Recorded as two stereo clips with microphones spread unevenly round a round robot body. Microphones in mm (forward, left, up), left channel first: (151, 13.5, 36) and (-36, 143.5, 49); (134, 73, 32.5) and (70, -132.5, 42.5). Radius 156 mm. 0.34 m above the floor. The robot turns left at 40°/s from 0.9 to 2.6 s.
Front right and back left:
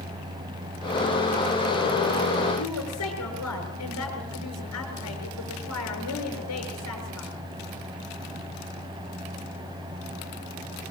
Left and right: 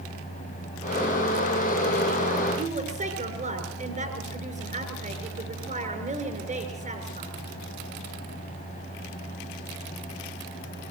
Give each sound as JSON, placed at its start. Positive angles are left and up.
{"t": 2.6, "sound": "a woman speaking", "azimuth_deg": -55, "distance_m": 6.5}